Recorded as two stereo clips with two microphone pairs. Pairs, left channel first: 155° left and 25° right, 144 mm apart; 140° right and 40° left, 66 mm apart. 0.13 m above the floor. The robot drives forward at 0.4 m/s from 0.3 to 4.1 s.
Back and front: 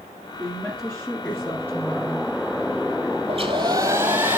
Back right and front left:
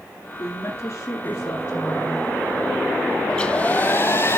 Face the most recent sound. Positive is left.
turn(degrees=-95)